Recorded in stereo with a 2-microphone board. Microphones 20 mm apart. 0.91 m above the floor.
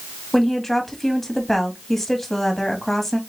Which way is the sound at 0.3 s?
15° left (ahead or behind).